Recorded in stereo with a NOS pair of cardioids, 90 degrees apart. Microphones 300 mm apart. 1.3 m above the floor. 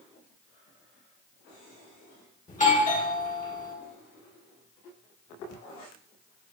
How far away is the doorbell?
About 2 m.